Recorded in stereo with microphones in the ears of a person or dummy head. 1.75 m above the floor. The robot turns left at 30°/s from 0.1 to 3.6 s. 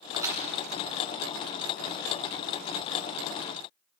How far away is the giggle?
No giggle in this recording.